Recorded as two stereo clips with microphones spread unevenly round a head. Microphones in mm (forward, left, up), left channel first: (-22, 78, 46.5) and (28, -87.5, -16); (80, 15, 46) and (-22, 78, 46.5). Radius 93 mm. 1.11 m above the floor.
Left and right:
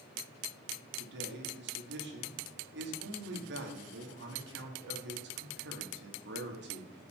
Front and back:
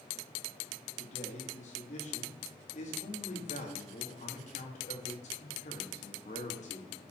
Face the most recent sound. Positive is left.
turn(degrees=-65)